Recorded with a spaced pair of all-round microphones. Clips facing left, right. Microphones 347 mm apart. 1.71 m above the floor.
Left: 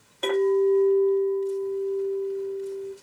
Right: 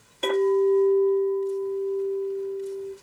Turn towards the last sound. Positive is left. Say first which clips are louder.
# even
turn(degrees=-35)  # may be behind; listen again after turning